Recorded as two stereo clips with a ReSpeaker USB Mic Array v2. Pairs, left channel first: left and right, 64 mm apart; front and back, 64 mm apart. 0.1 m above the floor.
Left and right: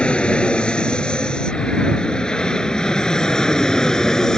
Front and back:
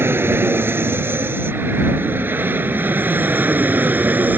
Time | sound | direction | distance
0.0 | an aircraft | 155° left | ?